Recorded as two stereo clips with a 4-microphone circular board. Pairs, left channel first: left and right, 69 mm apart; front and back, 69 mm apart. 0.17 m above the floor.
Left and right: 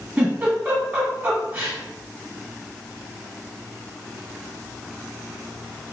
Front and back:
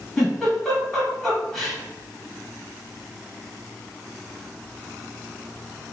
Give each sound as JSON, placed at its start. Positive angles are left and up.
{"t": 0.2, "sound": "a giggle", "azimuth_deg": -80, "distance_m": 1.4}